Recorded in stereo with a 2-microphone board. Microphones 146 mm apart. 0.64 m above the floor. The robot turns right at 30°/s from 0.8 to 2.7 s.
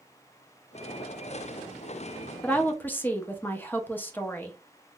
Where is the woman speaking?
10° left (ahead or behind), 0.6 m; by 4.6 s 15° left (ahead or behind), 0.6 m.